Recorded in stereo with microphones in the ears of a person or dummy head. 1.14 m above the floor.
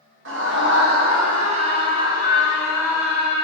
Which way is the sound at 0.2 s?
60° right (ahead or behind).